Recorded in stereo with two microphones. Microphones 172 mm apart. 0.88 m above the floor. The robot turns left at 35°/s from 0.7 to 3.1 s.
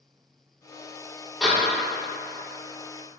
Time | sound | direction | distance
1.4 | a door slam | 5° left (ahead or behind) | 1.6 m